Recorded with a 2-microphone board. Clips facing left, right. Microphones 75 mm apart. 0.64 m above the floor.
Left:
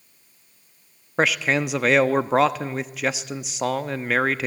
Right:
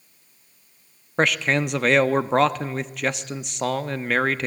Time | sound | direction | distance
1.2 | a man speaking | 5° left (ahead or behind) | 0.8 m